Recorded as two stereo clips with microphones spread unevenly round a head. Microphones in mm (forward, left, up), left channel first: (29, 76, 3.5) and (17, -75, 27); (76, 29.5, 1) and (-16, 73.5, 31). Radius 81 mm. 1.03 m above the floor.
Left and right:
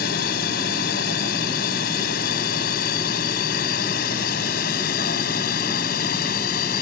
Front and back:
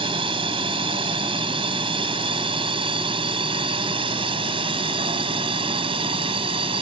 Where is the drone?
120° left; by 6.8 s 125° left.